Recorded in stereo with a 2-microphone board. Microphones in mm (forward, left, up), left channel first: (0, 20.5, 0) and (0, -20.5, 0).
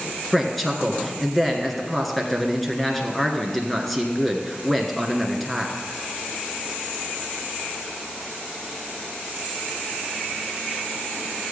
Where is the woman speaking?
5° left (ahead or behind), 1.4 m.